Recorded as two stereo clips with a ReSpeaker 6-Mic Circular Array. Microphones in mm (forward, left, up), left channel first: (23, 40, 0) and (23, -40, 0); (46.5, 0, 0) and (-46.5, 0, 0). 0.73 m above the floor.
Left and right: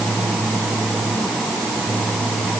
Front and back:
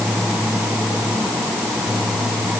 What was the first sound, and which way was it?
Only background noise.